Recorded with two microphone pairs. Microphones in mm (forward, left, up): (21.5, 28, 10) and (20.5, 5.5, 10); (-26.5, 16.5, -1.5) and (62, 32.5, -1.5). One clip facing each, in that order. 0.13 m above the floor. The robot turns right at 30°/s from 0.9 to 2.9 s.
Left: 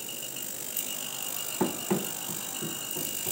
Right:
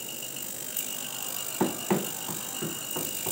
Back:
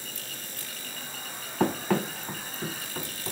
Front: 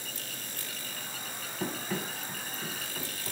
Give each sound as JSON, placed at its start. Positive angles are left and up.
{"t": 1.6, "sound": "running footsteps", "azimuth_deg": -170, "distance_m": 0.6}